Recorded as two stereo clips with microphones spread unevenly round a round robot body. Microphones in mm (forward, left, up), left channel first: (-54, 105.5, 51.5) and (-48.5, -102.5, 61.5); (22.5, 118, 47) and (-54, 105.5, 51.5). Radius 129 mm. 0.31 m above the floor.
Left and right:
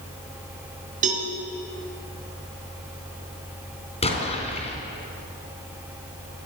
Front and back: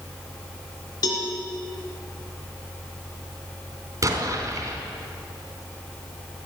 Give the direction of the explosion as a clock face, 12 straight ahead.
7 o'clock.